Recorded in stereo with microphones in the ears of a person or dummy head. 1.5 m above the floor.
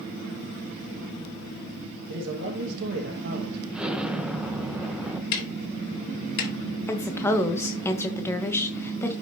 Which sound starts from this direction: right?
A man speaking, at 2.1 s.